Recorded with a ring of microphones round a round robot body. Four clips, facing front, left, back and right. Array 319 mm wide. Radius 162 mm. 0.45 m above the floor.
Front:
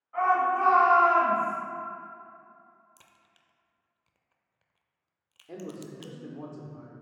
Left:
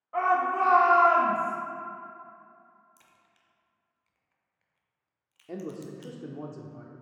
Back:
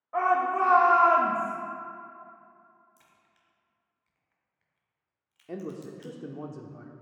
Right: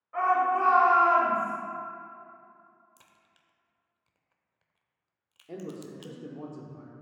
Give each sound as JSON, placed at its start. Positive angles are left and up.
{"t": 0.1, "sound": "a shout", "azimuth_deg": 160, "distance_m": 1.9}
{"t": 3.0, "sound": "a crack", "azimuth_deg": -30, "distance_m": 0.6}
{"t": 5.5, "sound": "a man speaking", "azimuth_deg": 155, "distance_m": 0.8}